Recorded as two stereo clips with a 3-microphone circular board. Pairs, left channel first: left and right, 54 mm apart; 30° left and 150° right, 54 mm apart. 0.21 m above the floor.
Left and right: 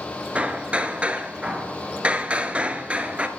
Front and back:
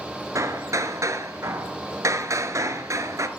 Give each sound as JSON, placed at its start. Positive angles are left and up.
{"t": 0.3, "sound": "hammering", "azimuth_deg": -160, "distance_m": 1.0}